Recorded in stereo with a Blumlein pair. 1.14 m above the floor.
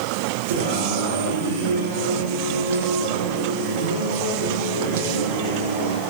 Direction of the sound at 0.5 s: 60° right.